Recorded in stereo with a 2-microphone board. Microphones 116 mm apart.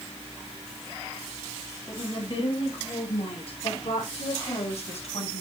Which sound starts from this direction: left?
A woman speaking, at 1.9 s.